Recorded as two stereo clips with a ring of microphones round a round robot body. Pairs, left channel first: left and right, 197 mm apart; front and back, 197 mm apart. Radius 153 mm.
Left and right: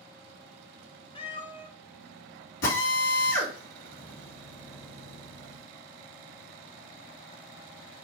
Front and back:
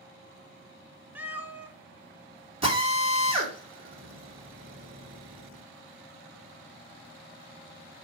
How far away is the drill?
About 3.5 m.